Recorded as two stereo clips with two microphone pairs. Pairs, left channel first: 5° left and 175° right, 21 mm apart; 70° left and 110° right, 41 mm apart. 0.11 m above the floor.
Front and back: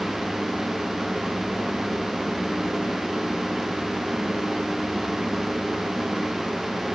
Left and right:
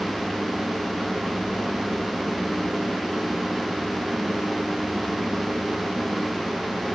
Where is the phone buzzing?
No phone buzzing in this recording.